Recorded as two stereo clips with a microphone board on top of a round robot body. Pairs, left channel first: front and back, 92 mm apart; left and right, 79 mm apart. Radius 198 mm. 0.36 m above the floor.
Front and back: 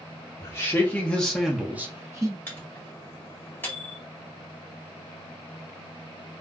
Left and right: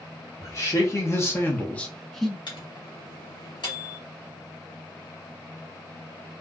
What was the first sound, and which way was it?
A man speaking, 55° left.